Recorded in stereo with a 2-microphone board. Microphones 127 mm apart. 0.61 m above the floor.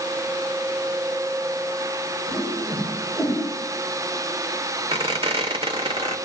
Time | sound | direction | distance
2.3 | a whoosh | 25° right (ahead or behind) | 9.5 m
4.9 | a squeak | 45° right (ahead or behind) | 1.4 m